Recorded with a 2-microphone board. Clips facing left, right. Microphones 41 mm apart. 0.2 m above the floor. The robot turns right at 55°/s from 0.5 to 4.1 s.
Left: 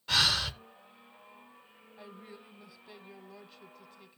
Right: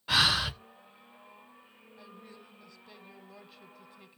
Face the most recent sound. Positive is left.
turn(degrees=-15)  # may be behind; listen again after turning